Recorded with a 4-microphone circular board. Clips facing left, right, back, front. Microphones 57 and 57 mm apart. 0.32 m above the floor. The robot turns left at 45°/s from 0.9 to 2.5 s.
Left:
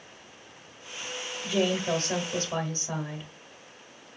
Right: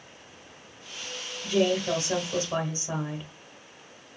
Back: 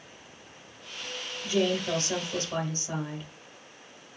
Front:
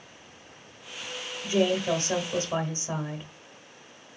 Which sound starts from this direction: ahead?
A woman speaking, at 1.4 s.